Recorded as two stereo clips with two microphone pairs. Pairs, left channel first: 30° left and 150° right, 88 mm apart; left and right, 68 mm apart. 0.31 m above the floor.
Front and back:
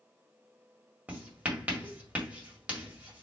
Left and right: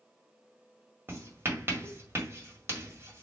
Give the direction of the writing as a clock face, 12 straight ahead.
3 o'clock.